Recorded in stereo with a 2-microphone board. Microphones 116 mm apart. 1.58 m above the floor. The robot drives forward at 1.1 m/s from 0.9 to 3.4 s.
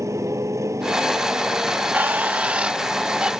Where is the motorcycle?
25° right (ahead or behind); by 3.4 s 20° right (ahead or behind).